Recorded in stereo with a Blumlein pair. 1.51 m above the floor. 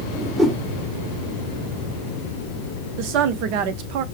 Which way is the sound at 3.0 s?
45° right.